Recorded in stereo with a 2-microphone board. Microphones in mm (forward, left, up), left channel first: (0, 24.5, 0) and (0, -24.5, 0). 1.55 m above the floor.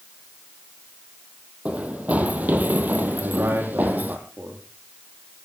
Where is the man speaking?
60° right (ahead or behind), 3.5 m.